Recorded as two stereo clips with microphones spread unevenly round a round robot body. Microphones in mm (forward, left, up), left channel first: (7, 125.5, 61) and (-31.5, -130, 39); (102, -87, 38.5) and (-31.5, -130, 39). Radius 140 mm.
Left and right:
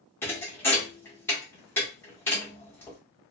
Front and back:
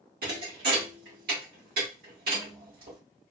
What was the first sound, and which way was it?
A thud, 165° left.